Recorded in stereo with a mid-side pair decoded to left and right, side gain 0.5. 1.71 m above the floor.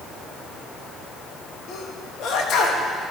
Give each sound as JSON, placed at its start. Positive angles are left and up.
{"t": 1.7, "sound": "a sneeze", "azimuth_deg": 65, "distance_m": 2.0}